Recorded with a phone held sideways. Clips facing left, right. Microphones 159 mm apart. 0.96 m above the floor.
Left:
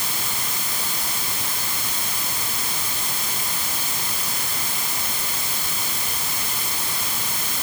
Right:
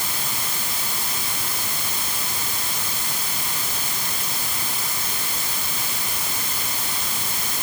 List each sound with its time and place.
Only background noise.